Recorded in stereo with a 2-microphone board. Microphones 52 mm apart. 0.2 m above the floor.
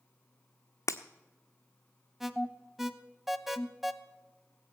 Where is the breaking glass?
75° left (ahead or behind), 0.8 m.